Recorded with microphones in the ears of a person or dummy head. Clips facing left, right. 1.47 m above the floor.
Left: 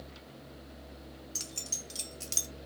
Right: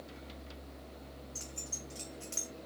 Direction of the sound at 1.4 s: 50° left (ahead or behind).